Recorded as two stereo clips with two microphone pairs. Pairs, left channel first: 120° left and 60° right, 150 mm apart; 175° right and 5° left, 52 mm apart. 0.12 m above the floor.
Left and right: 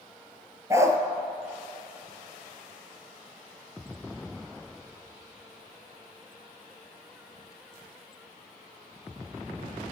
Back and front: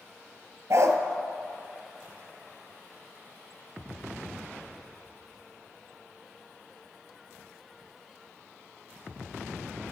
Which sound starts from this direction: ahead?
A dog barking, at 0.7 s.